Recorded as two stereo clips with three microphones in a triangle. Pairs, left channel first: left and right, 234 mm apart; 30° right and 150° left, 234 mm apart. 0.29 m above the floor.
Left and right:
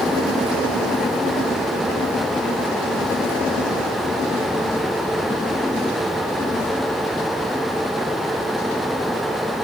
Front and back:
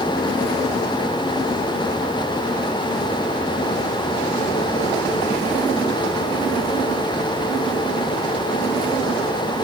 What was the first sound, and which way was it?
Only background noise.